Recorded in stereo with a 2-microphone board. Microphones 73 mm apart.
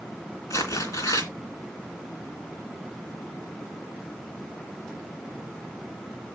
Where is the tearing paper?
45° left (ahead or behind), 3 m.